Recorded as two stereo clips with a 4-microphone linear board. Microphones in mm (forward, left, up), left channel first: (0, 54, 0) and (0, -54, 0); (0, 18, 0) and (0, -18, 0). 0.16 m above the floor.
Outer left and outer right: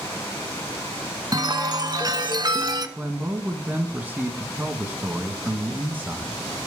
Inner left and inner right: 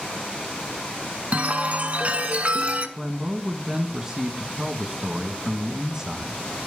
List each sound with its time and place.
1.3 s a chime: 40° right (ahead or behind), 1.0 m
3.0 s a man speaking: 15° right (ahead or behind), 1.1 m